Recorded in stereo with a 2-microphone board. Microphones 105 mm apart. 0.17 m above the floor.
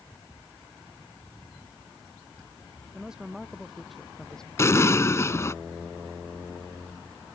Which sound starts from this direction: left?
An explosion, at 4.6 s.